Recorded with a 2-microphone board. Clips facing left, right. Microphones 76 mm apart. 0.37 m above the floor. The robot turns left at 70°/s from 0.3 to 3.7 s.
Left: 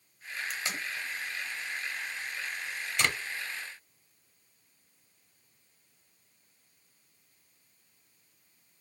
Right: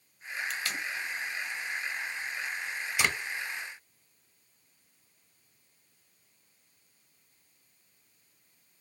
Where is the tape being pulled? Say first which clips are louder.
Even; 10° left (ahead or behind), 0.9 m; by 3.1 s 15° right (ahead or behind), 0.9 m.